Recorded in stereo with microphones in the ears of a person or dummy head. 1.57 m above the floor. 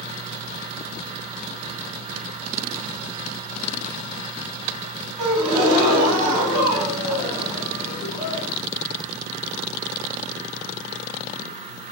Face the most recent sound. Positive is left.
turn(degrees=-30)  # may be behind; listen again after turning